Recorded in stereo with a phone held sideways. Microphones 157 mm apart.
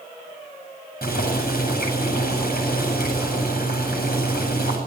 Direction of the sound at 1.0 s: 75° left (ahead or behind).